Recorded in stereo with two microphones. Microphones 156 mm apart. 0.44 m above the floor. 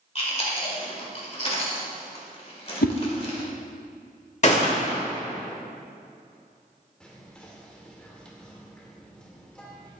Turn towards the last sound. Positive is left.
turn(degrees=5)  # may be behind; listen again after turning